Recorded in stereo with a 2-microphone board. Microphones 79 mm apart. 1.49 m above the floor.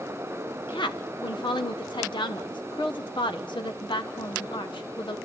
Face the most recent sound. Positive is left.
turn(degrees=80)